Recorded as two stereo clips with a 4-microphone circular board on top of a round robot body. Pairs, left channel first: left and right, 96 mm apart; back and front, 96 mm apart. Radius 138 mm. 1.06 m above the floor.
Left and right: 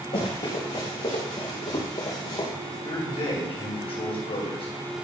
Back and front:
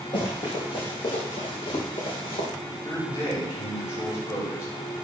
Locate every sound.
0.1 s running footsteps: 130° left, 6.5 m; by 2.5 s 145° left, 5 m
2.6 s a man speaking: 120° left, 6 m